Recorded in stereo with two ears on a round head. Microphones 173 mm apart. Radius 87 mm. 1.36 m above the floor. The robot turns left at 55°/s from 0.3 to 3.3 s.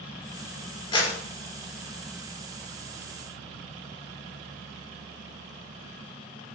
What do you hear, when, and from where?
0.9 s a clap: 25° left (ahead or behind), 3 m; by 1.1 s 40° left (ahead or behind), 3 m